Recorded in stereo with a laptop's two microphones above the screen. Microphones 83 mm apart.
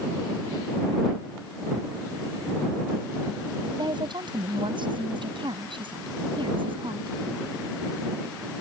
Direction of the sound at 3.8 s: 65° right (ahead or behind).